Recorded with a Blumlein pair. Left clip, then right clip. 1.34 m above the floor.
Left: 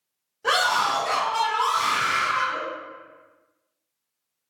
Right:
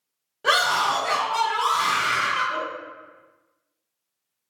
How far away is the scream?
About 1.7 m.